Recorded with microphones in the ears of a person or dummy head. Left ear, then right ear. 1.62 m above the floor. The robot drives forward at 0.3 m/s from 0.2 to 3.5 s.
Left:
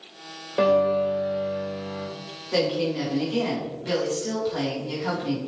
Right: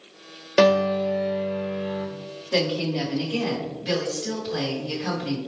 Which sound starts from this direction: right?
A piano, at 0.6 s.